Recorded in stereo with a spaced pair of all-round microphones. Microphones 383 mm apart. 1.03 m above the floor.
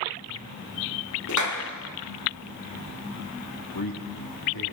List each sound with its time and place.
1.3 s a clap: 50° left (ahead or behind), 1.8 m
3.7 s a man speaking: 70° left (ahead or behind), 1.7 m